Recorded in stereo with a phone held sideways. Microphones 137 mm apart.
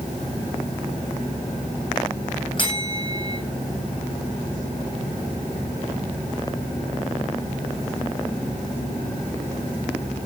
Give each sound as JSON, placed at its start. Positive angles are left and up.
{"t": 2.6, "sound": "a bell", "side_deg": 35, "distance_m": 6.5}